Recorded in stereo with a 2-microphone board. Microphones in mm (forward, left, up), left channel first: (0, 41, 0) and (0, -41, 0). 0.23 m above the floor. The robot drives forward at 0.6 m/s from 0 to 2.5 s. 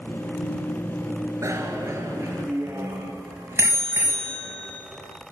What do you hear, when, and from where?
1.4 s a bicycle bell: 35° right (ahead or behind), 3 m; by 4.7 s 30° right (ahead or behind), 3.5 m